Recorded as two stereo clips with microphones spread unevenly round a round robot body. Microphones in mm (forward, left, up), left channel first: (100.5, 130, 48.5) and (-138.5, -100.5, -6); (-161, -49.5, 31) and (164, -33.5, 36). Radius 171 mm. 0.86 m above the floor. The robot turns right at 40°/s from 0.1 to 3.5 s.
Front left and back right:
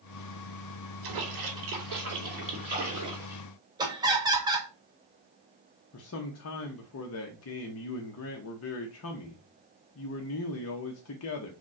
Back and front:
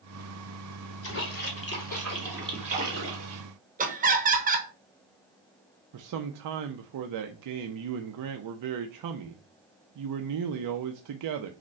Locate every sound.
1.0 s a splash: 130° right, 2.5 m; by 3.4 s 35° right, 2.5 m
3.8 s laughter: 60° right, 1.1 m
5.9 s a man speaking: 5° right, 0.5 m